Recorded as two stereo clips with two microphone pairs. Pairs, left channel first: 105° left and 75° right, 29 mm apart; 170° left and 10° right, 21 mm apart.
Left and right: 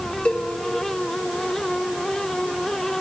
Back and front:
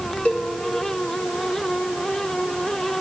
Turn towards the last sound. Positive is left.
turn(degrees=140)